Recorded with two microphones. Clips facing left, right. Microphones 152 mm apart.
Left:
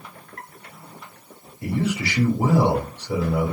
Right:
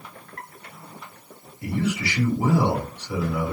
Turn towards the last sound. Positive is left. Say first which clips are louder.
# left 1 dB
turn(degrees=55)  # may be behind; listen again after turning